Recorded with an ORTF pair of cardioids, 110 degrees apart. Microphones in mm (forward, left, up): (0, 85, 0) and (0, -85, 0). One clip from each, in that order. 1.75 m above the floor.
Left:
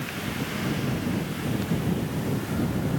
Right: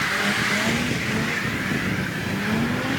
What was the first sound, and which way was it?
Only background noise.